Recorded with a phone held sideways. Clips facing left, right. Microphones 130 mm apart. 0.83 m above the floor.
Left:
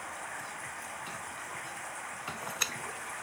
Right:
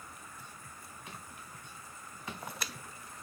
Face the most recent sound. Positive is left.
turn(degrees=80)